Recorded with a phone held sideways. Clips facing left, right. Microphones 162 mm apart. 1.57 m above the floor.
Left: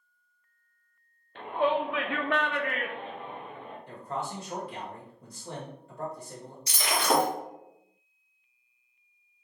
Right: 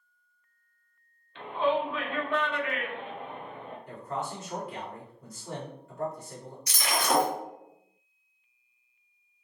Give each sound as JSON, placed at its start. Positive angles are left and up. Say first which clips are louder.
{"t": 1.4, "sound": "a shout", "louder": "even", "side_deg": 45, "distance_m": 0.8}
{"t": 3.9, "sound": "a man speaking", "louder": "even", "side_deg": 30, "distance_m": 1.7}
{"t": 6.7, "sound": "breaking glass", "louder": "left 1 dB", "side_deg": 30, "distance_m": 1.1}